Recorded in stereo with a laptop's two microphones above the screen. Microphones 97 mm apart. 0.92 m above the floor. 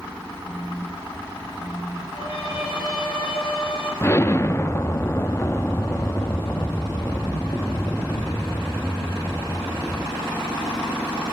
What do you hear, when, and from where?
0.5 s a phone buzzing: 70° left (ahead or behind), 2.5 m
2.1 s a violin: 65° left (ahead or behind), 7 m
4.0 s an explosion: 25° left (ahead or behind), 0.8 m